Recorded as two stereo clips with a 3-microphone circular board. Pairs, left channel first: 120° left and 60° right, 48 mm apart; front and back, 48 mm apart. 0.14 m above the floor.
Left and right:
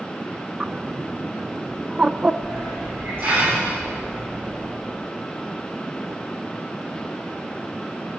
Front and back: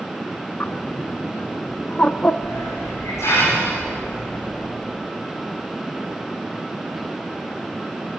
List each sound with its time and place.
0.6 s a bird: 5° right, 0.5 m
2.4 s a hiss: 15° right, 9.5 m